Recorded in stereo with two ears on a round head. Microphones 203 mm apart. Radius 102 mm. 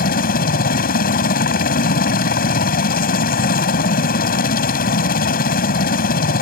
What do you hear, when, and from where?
0.0 s a helicopter: 45° left (ahead or behind)